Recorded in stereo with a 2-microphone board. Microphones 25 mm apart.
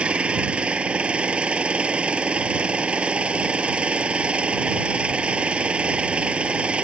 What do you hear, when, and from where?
0.0 s an engine running: 50° right (ahead or behind)